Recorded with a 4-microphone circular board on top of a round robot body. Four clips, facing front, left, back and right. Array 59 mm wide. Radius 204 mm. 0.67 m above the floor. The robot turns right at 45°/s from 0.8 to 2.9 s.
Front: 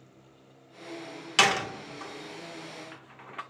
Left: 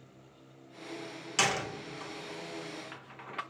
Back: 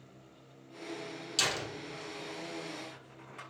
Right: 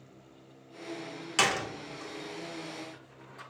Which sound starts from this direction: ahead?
A door slam, at 1.4 s.